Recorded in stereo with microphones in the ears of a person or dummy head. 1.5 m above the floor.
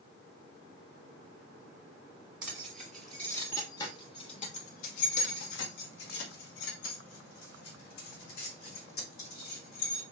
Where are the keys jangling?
5° right (ahead or behind), 1.5 m; by 10.0 s 60° left (ahead or behind), 3.5 m.